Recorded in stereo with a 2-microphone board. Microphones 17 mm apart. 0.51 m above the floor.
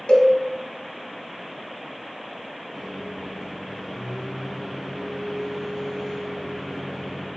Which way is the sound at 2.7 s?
Centre (ahead or behind).